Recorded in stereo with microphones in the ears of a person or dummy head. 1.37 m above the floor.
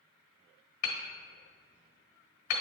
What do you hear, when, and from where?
0.8 s hammering: 50° left (ahead or behind), 1.2 m